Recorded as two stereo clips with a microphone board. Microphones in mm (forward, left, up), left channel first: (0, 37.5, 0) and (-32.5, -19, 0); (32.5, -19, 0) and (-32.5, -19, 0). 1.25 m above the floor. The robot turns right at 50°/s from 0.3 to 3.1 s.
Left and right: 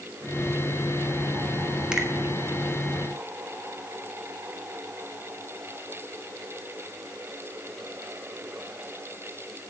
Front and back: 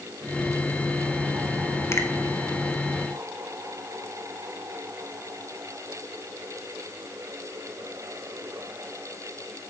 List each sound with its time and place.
1.9 s a finger snap: 45° right, 1.0 m; by 2.1 s 35° right, 1.0 m